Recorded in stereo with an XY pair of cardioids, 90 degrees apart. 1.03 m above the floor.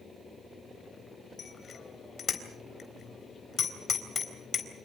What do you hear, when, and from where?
1.4 s a bicycle bell: 50° left, 3.5 m